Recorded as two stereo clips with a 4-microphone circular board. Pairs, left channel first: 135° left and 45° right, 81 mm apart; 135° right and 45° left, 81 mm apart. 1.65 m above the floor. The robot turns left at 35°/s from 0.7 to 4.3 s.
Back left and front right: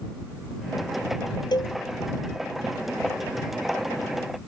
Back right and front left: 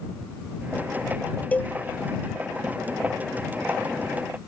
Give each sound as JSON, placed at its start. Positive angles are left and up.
{"t": 1.5, "sound": "a cowbell", "azimuth_deg": 155}